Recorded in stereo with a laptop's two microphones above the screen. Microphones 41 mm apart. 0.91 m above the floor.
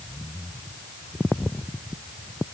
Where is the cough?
No cough in this recording.